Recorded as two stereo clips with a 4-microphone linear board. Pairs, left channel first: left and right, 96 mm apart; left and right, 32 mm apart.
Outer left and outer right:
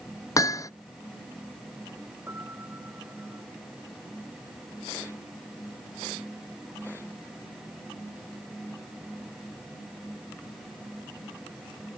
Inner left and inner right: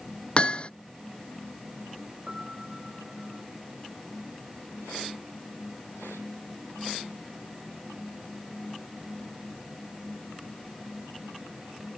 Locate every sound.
0.4 s hammering: 35° left (ahead or behind)
2.3 s a piano: 25° right (ahead or behind)